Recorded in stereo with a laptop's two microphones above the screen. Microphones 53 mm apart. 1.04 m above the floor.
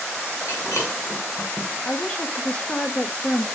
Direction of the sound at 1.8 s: 20° left (ahead or behind).